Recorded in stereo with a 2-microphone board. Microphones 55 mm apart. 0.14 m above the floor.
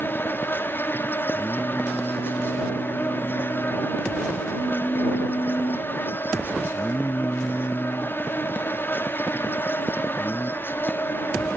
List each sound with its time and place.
0.0 s an insect: 40° left (ahead or behind)
1.3 s singing: 55° left (ahead or behind)